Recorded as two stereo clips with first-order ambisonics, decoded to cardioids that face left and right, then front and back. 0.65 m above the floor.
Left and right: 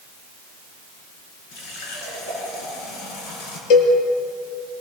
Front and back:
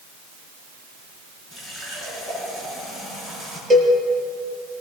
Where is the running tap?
95° left, 7 m.